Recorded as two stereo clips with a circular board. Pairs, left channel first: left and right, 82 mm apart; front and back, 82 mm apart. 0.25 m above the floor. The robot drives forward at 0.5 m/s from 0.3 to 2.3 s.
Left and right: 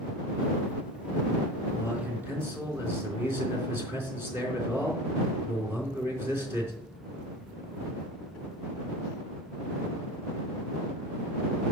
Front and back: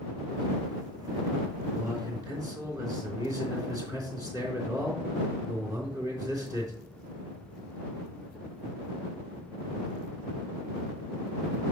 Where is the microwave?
No microwave in this recording.